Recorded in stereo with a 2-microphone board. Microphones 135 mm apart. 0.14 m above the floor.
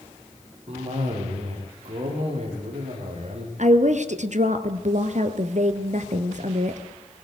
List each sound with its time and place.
0.7 s a cough: 55° right (ahead or behind), 8 m
3.6 s a woman speaking: 60° right (ahead or behind), 2.5 m